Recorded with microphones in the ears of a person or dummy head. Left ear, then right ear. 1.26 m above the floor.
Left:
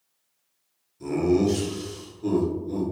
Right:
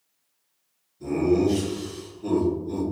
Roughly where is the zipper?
I don't hear a zipper.